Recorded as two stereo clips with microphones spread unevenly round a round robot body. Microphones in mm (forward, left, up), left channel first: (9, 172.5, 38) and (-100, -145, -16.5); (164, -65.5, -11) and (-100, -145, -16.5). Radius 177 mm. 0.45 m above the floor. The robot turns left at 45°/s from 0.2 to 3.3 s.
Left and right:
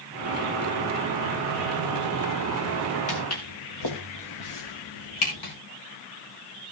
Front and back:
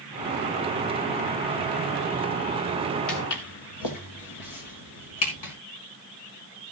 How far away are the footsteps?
About 2.5 m.